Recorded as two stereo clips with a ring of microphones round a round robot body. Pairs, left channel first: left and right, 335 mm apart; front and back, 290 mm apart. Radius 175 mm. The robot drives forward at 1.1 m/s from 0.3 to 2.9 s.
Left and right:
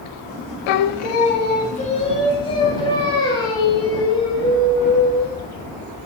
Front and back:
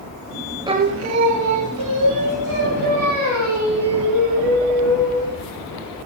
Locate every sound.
0.7 s singing: 100° left, 0.5 m; by 5.4 s 170° left, 2.5 m